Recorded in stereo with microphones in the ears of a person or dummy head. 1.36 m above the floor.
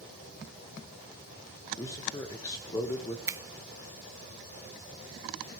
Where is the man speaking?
20° left (ahead or behind), 1.6 m.